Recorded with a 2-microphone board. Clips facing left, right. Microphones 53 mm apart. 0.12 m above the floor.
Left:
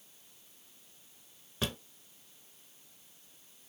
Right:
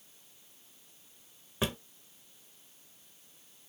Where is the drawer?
20° right (ahead or behind), 0.9 m.